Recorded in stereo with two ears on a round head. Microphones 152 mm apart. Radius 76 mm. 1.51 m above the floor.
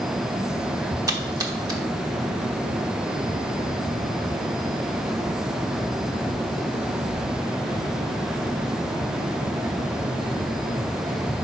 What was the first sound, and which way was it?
A splash, 20° right (ahead or behind).